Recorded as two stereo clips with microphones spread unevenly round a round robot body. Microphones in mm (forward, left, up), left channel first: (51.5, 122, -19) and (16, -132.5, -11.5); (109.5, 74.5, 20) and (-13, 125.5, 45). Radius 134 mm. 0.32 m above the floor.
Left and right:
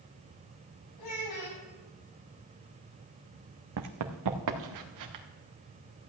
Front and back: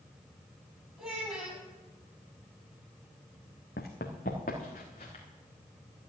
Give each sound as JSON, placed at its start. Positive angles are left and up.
{"t": 1.0, "sound": "a child speaking", "azimuth_deg": 75, "distance_m": 7.0}
{"t": 3.8, "sound": "running footsteps", "azimuth_deg": -75, "distance_m": 1.1}